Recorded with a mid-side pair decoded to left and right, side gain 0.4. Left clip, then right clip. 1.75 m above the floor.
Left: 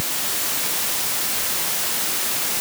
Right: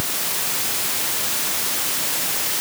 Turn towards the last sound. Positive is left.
No sound to turn to.